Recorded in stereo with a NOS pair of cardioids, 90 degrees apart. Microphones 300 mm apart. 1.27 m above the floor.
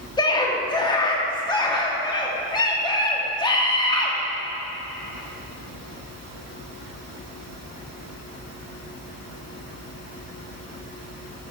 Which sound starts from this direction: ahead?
A scream, at 0.2 s.